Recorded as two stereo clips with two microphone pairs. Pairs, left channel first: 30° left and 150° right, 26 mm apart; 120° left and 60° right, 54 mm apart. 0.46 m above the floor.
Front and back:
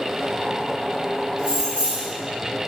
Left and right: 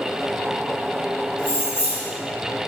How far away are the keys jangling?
About 1.1 m.